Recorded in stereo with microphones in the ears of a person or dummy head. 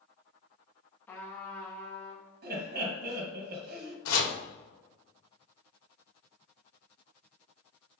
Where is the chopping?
85° left, 1.7 m.